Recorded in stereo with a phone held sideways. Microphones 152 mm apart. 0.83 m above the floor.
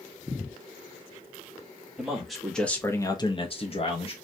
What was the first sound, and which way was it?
A man speaking, 5° right (ahead or behind).